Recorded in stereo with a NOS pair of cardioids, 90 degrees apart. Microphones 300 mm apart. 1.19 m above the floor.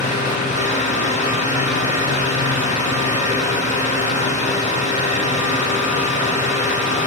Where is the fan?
25° left, 0.8 m.